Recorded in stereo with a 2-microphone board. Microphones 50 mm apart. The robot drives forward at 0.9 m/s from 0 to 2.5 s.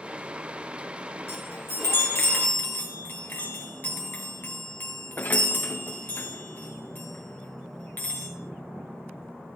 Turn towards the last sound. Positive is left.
turn(degrees=40)  # may be behind; listen again after turning